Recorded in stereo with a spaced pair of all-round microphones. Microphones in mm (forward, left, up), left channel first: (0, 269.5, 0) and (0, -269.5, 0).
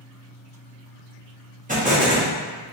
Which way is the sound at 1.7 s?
15° right (ahead or behind).